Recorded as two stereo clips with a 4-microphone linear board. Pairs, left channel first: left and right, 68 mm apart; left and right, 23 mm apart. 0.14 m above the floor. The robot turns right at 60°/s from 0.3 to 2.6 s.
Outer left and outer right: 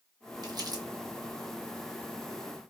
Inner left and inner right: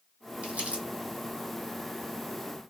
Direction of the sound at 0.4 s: 85° right.